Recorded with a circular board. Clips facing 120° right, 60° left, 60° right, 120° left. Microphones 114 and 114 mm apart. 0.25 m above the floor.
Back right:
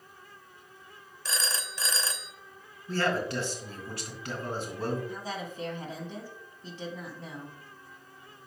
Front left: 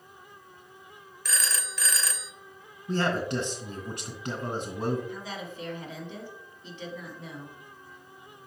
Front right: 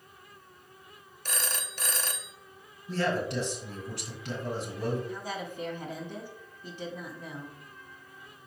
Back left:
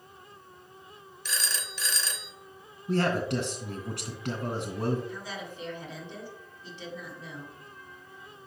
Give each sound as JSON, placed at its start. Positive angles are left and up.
{"t": 1.2, "sound": "a phone ringing", "azimuth_deg": -65, "distance_m": 0.7}
{"t": 2.9, "sound": "a man speaking", "azimuth_deg": 130, "distance_m": 2.5}
{"t": 5.1, "sound": "a woman speaking", "azimuth_deg": -80, "distance_m": 2.0}